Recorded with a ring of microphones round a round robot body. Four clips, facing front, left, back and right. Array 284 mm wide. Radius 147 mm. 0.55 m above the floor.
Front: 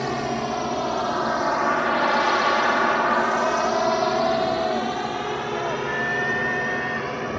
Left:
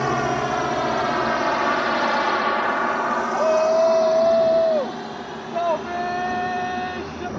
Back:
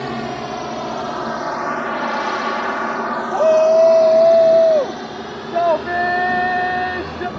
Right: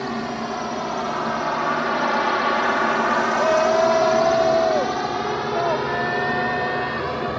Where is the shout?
175° left.